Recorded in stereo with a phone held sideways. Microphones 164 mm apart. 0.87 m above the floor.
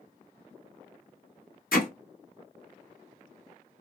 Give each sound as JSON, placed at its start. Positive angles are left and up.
{"t": 1.7, "sound": "hammering", "side_deg": 65, "distance_m": 1.5}